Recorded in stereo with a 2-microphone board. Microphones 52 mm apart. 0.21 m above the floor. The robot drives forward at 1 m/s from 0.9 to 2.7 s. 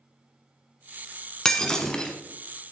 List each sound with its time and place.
1.4 s breaking glass: 10° left (ahead or behind), 1.5 m; by 2.1 s 15° left (ahead or behind), 1.0 m